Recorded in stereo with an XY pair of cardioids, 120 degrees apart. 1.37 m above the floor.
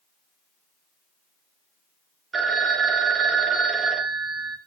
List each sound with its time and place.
2.3 s a phone ringing: 35° right, 1.2 m